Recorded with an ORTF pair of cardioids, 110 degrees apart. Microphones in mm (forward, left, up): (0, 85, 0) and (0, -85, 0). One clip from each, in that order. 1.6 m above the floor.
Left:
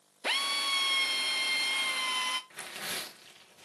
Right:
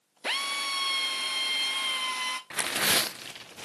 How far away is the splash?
I don't hear a splash.